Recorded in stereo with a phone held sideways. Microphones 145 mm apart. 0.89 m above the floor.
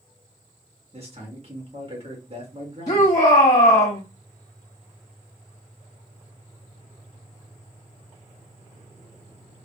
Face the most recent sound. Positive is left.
turn(degrees=50)  # may be behind; listen again after turning